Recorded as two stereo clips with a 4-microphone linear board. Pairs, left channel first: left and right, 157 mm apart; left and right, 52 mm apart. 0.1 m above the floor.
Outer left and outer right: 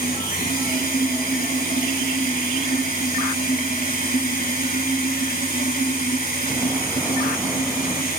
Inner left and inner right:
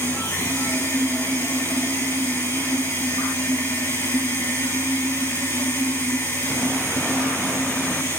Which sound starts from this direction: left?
Running water, at 0.0 s.